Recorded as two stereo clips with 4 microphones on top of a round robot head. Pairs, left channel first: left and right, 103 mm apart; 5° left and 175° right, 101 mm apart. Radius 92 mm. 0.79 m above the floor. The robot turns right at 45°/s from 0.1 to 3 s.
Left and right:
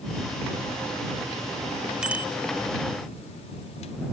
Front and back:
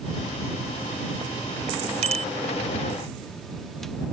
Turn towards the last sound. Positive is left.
turn(degrees=-130)